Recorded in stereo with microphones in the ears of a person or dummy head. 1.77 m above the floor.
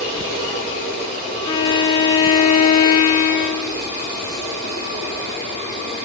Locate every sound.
1.4 s a violin: 20° left (ahead or behind), 0.8 m